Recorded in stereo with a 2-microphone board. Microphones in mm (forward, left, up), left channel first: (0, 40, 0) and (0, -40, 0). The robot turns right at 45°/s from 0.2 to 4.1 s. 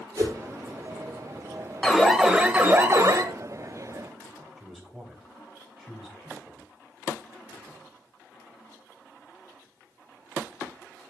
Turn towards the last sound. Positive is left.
turn(degrees=0)  # may be behind; listen again after turning